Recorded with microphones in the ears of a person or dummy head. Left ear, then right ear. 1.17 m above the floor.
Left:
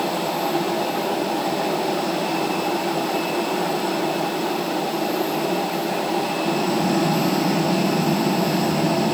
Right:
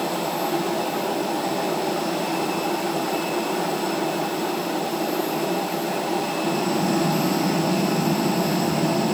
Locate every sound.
Only background noise.